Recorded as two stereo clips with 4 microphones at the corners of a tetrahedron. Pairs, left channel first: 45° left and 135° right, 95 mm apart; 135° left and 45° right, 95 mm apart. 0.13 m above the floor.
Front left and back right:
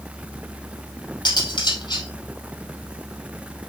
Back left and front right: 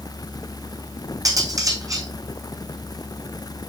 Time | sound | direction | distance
1.2 | cutlery clinking | 5° left | 3.5 m